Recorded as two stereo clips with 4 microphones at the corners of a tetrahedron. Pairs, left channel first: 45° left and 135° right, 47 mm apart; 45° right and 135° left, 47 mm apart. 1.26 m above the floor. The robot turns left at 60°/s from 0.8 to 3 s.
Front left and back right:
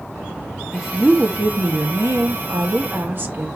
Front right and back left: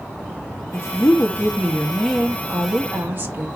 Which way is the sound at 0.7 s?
50° right.